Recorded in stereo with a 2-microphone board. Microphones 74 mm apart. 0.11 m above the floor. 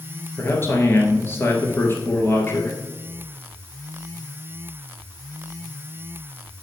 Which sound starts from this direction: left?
A man speaking, at 0.4 s.